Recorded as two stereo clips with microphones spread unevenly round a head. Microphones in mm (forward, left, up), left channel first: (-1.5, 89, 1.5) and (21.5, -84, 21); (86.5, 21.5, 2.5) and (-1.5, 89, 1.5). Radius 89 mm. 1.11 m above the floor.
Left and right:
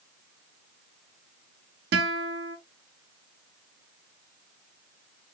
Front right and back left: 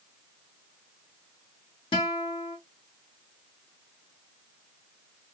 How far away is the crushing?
I don't hear crushing.